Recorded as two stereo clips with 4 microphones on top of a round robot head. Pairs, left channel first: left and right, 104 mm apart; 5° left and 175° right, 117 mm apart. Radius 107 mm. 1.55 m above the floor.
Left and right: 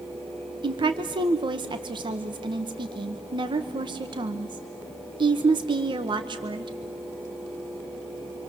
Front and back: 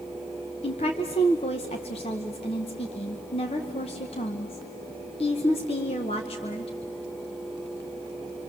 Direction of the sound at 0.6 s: 50° right.